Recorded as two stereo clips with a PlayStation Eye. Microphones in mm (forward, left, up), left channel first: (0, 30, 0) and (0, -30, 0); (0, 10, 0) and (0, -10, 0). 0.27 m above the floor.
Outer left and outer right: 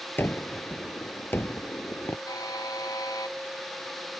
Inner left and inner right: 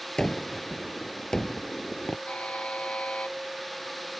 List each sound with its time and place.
0.2 s a gunshot: 35° left (ahead or behind)
2.3 s a buzzer: 85° left